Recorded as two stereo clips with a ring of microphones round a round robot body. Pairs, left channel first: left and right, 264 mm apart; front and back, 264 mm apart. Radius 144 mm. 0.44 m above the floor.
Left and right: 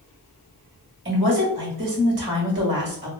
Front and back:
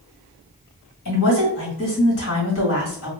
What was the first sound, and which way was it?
A woman speaking, 45° right.